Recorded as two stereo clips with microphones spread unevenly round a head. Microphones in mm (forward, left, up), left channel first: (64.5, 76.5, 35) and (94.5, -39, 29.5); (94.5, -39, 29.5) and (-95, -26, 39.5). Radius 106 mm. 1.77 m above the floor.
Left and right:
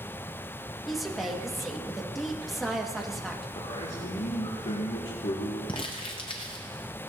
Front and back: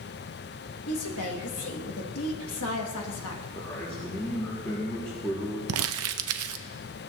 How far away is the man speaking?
About 2 m.